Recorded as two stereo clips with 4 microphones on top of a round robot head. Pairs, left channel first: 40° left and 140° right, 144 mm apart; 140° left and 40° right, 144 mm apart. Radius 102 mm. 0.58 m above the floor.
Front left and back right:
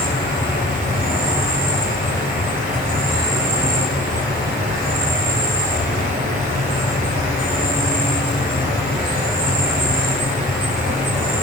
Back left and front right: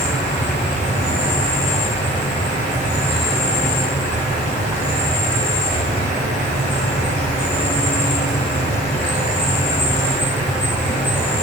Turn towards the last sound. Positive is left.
turn(degrees=-170)